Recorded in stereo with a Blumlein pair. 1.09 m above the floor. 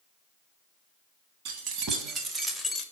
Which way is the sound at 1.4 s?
45° right.